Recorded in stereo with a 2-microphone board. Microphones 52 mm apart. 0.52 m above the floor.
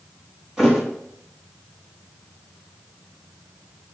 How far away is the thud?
About 1.0 m.